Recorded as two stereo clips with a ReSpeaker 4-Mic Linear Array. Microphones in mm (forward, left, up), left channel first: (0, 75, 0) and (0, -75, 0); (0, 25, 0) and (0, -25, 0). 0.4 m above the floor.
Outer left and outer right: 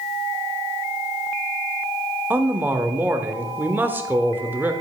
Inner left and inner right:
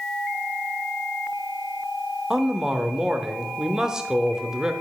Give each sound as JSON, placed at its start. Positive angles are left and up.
{"t": 2.3, "sound": "a man speaking", "side_deg": -15, "distance_m": 0.8}